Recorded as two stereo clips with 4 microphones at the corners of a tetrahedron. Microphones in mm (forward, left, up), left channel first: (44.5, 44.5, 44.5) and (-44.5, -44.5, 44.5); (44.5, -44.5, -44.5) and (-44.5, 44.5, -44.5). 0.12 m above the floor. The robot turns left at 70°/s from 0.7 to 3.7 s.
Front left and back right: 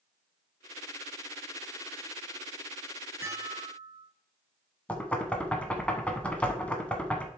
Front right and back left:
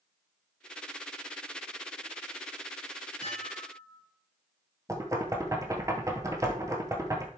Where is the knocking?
115° left, 1.2 m.